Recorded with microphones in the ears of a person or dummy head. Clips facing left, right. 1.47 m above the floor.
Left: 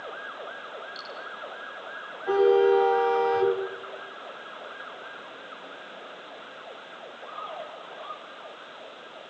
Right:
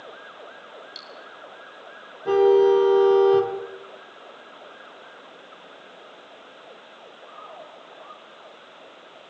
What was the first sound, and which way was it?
Cutlery clinking, 35° right (ahead or behind).